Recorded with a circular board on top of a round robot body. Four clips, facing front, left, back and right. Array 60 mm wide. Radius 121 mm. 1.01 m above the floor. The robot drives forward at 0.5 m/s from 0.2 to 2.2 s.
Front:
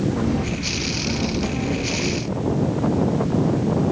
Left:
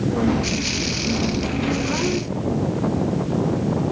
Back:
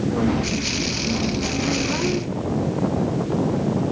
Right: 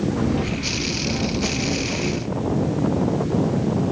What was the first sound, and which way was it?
Only background noise.